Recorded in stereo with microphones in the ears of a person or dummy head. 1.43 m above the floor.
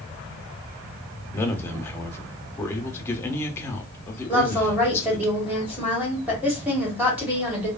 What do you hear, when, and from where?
1.3 s a man speaking: 15° left (ahead or behind), 0.6 m
4.3 s a woman speaking: 5° right (ahead or behind), 1.3 m